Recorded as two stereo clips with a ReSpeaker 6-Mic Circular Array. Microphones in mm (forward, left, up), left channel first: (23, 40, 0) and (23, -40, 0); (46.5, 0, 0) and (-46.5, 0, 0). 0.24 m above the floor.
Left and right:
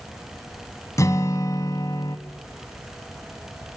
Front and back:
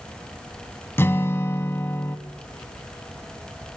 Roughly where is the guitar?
Ahead left.